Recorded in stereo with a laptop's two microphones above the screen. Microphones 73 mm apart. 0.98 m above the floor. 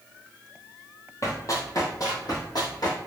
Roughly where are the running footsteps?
Left.